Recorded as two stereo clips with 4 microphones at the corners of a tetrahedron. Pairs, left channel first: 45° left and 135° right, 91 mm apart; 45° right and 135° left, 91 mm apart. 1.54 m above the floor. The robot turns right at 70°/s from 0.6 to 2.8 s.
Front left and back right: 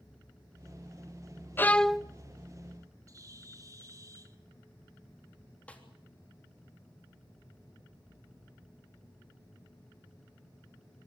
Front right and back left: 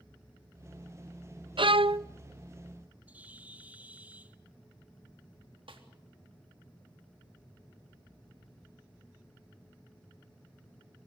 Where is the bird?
160° right, 1.3 m.